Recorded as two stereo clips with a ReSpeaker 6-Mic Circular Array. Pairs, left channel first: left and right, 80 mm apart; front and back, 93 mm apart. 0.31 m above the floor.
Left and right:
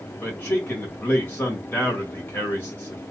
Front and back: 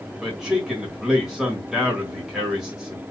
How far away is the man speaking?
About 1.4 m.